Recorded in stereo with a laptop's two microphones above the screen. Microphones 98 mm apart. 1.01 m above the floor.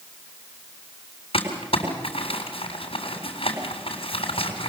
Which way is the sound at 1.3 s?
75° left (ahead or behind).